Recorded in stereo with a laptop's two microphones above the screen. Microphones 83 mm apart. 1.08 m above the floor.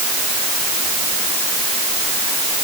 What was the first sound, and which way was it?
Only background noise.